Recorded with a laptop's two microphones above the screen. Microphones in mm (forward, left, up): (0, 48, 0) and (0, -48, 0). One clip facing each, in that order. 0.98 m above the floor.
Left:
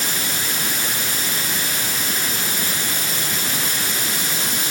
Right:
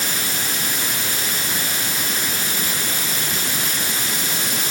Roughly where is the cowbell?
I don't hear a cowbell.